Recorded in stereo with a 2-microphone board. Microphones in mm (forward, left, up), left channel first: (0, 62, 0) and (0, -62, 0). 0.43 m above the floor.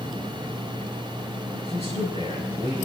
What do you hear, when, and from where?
1.6 s a man speaking: 55° right (ahead or behind), 7 m; by 2.9 s 60° right (ahead or behind), 6 m